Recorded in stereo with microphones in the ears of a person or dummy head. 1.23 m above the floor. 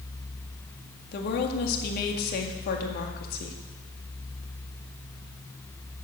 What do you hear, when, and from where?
1.1 s a woman speaking: 55° left (ahead or behind), 1.9 m